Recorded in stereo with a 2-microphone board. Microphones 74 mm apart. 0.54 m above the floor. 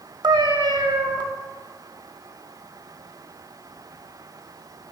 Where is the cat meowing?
85° right, 0.8 m.